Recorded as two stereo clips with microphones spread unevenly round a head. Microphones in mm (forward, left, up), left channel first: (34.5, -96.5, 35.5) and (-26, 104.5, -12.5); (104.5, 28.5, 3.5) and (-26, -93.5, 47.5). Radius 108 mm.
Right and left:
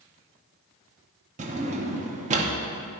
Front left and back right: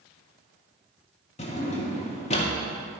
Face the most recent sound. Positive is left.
turn(degrees=80)